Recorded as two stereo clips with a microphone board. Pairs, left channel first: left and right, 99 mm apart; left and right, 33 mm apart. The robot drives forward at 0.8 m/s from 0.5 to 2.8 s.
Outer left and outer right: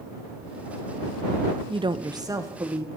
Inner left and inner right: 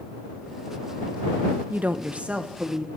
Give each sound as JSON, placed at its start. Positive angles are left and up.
{"t": 1.7, "sound": "a woman speaking", "side_deg": -60, "distance_m": 0.6}